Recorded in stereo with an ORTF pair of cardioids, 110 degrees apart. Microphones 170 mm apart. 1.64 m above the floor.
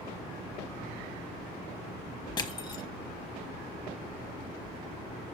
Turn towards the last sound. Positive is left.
turn(degrees=25)